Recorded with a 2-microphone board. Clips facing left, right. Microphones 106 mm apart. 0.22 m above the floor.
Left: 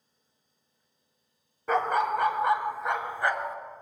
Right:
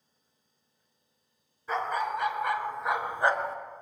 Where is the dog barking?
70° left (ahead or behind), 0.7 m; by 3.6 s 35° right (ahead or behind), 0.8 m.